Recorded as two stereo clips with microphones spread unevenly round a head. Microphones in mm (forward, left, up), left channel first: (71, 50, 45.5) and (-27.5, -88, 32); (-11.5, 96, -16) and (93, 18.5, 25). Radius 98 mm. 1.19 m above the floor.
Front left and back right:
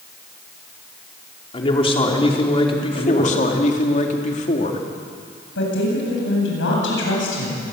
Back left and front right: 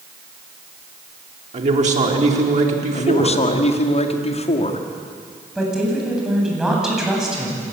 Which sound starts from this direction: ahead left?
A woman speaking, at 5.5 s.